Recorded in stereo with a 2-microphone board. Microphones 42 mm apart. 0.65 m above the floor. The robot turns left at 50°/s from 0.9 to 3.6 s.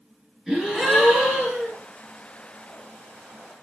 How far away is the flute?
I don't hear a flute.